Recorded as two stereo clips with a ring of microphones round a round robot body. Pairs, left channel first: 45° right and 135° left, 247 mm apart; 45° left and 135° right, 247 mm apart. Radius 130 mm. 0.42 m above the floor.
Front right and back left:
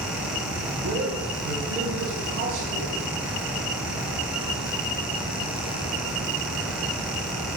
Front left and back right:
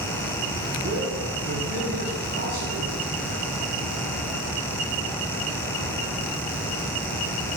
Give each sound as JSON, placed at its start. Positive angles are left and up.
{"t": 0.8, "sound": "a man speaking", "azimuth_deg": 175, "distance_m": 4.0}